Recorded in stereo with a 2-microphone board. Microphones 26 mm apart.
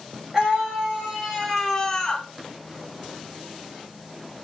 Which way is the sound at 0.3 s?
20° right (ahead or behind).